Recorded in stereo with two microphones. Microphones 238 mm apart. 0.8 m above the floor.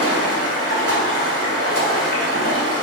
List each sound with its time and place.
0.0 s running water: 85° right, 2.5 m